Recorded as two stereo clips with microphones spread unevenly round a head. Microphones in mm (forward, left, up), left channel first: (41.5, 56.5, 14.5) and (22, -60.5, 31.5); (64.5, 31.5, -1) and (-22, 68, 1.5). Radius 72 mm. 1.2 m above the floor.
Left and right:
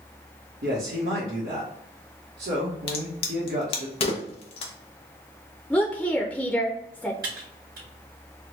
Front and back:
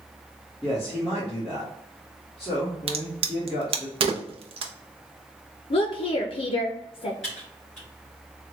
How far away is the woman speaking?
About 0.5 m.